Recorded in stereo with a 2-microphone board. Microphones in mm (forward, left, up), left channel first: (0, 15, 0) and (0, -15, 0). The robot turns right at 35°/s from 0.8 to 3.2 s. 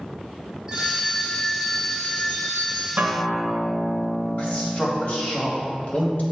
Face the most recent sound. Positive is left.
turn(degrees=45)  # may be behind; listen again after turning